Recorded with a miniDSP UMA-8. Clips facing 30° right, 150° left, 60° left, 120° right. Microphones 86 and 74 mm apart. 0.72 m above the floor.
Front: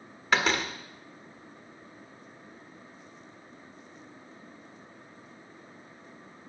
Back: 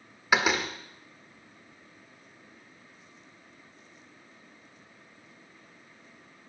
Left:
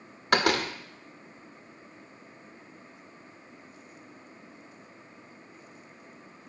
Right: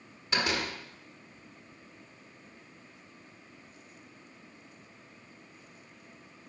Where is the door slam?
70° left, 1.5 m.